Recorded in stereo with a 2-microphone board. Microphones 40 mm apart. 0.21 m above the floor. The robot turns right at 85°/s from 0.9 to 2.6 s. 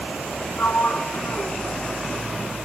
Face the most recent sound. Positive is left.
turn(degrees=-145)